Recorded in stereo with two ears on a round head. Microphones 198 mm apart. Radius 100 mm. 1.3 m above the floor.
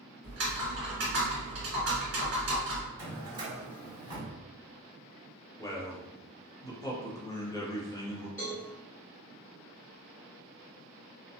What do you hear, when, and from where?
0.2 s typing on a keyboard: 55° right (ahead or behind), 1.5 m
3.0 s a drawer: 20° right (ahead or behind), 1.7 m
5.6 s a man speaking: 15° left (ahead or behind), 0.7 m
8.4 s a cowbell: 10° left (ahead or behind), 1.9 m